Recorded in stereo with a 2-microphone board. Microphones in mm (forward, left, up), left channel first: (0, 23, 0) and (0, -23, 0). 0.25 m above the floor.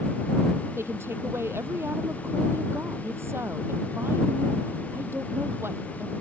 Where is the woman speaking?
70° right (ahead or behind).